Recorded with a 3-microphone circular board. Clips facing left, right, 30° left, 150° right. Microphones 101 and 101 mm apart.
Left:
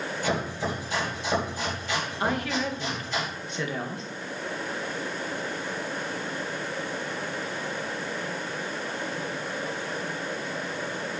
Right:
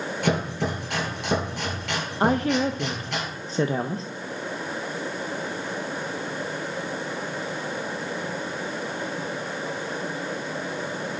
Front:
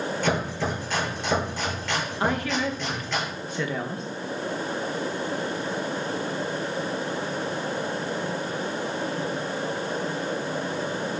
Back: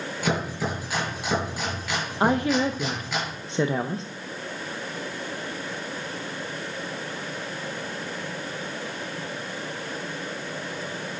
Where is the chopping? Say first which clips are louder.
Right 4 dB, back 1 dB; 70° right, 6 m.